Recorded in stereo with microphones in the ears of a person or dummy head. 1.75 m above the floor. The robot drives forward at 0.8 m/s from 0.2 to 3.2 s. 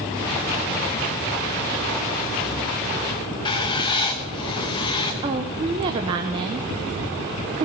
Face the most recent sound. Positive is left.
turn(degrees=-25)  # may be behind; listen again after turning